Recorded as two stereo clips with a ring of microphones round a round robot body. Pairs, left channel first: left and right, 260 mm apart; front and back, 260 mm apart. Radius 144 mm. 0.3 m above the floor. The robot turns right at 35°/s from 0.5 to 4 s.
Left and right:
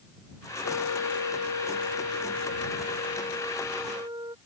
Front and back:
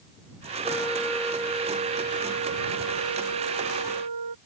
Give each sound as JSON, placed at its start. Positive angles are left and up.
{"t": 0.6, "sound": "a flute", "azimuth_deg": 75}